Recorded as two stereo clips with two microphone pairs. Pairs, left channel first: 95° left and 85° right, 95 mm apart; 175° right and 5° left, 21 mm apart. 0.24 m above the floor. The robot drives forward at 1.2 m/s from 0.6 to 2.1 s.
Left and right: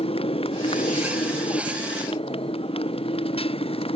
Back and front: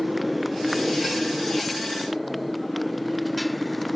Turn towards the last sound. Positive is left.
turn(degrees=95)